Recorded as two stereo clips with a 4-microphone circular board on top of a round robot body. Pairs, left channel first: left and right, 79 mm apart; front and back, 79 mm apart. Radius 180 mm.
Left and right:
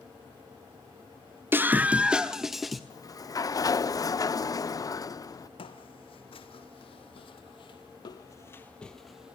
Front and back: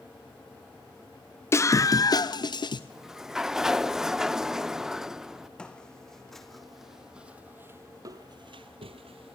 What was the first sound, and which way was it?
A scream, 40° right.